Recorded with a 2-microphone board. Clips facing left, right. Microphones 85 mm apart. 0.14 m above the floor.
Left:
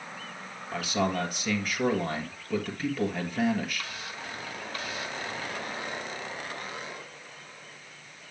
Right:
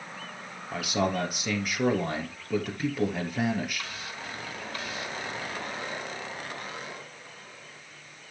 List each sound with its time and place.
0.7 s a man speaking: 5° right (ahead or behind), 2.5 m